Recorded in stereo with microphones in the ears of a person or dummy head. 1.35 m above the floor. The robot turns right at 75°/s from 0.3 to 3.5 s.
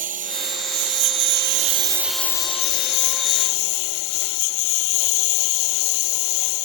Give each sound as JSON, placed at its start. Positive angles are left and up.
{"t": 0.0, "sound": "a lawn mower", "azimuth_deg": -140}